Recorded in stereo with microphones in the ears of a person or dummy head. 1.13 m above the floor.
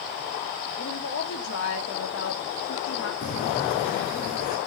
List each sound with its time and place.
0.8 s a woman speaking: 70° left (ahead or behind), 2 m; by 3.1 s 80° left, 2.5 m
3.2 s footsteps: 45° left (ahead or behind), 2.5 m; by 4.6 s 50° left (ahead or behind), 4 m